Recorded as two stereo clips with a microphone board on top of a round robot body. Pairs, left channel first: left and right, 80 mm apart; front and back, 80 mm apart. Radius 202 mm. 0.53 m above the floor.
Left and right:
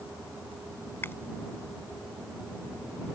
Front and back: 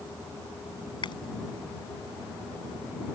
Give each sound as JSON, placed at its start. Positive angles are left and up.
{"t": 1.0, "sound": "chewing", "azimuth_deg": 25}